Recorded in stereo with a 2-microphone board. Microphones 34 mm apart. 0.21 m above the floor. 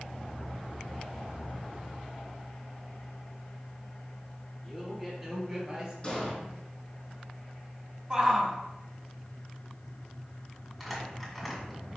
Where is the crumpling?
Centre (ahead or behind), 2 m.